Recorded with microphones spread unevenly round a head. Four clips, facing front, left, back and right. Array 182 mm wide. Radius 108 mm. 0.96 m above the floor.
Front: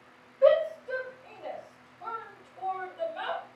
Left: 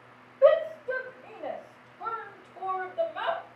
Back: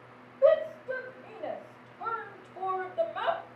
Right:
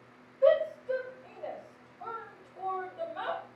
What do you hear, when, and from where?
0.4 s a shout: 75° left, 1.1 m; by 3.4 s 175° right, 1.3 m